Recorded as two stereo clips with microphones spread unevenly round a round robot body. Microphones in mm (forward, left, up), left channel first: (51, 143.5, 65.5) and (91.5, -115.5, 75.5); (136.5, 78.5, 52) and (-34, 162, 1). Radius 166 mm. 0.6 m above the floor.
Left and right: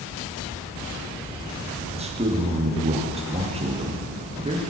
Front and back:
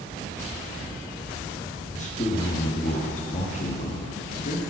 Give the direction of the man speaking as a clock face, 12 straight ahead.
2 o'clock.